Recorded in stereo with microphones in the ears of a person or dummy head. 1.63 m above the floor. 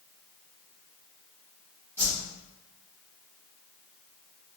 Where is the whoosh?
10° right (ahead or behind), 2.0 m.